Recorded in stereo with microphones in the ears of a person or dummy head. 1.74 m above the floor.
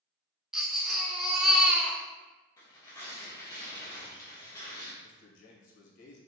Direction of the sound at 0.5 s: 5° right (ahead or behind).